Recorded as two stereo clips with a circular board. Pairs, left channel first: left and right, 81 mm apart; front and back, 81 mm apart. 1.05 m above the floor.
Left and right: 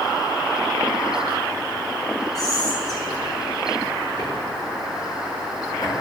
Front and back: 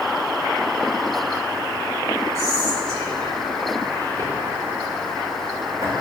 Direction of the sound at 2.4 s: 135° left.